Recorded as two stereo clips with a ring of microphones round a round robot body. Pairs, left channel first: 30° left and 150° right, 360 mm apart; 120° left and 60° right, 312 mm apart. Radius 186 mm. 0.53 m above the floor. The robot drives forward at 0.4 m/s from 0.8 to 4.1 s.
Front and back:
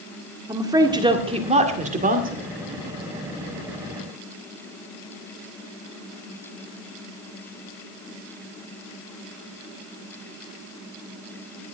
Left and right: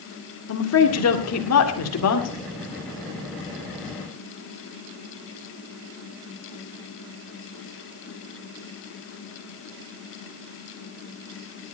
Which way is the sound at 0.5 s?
135° left.